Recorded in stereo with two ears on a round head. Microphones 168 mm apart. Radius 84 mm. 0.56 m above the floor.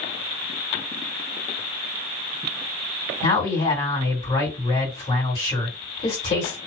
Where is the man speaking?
35° left (ahead or behind), 2.0 m.